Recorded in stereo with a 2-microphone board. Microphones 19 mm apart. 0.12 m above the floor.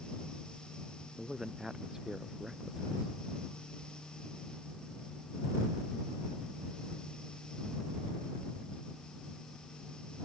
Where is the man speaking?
20° right (ahead or behind).